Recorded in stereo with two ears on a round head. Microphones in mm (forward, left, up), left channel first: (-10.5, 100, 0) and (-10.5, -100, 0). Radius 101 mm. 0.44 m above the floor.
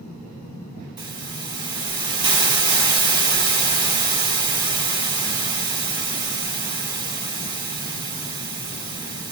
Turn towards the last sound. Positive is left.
turn(degrees=-20)  # may be behind; listen again after turning